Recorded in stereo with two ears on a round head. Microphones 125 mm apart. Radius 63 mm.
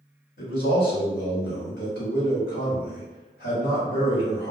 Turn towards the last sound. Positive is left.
turn(degrees=70)  # may be behind; listen again after turning